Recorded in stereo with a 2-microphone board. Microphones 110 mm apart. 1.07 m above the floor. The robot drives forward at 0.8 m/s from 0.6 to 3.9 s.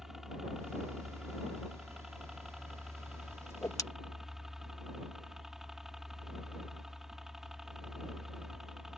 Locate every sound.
0.0 s a helicopter: 5° right (ahead or behind)
3.5 s a whoosh: 25° left (ahead or behind); by 3.8 s 30° left (ahead or behind)